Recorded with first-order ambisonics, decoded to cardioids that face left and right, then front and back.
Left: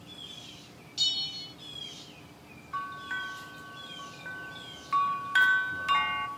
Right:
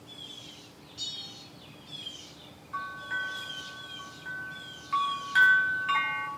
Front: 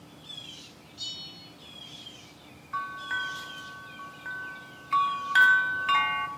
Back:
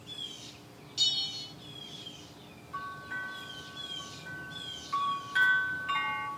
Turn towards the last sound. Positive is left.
turn(degrees=20)